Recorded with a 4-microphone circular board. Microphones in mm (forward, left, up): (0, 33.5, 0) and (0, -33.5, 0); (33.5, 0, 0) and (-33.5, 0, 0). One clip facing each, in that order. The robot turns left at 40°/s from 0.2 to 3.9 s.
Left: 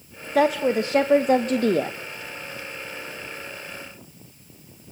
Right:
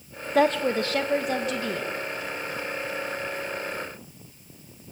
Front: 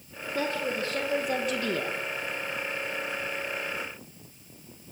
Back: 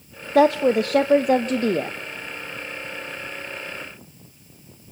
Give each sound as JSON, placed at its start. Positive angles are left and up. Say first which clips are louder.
{"t": 0.3, "sound": "a woman speaking", "louder": "left 2 dB, back 14 dB", "azimuth_deg": 180, "distance_m": 0.8}